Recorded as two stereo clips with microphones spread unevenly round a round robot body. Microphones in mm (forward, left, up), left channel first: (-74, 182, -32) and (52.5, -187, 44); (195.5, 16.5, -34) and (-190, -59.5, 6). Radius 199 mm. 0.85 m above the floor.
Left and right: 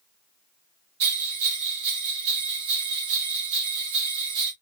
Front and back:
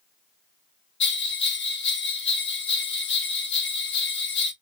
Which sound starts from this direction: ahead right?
A bell, at 1.0 s.